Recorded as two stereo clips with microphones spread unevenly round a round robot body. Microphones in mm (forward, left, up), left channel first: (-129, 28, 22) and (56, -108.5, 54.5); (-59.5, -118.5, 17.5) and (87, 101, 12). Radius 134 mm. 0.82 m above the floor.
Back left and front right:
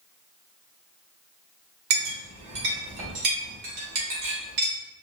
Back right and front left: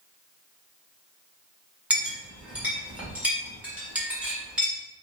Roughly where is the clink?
Ahead right.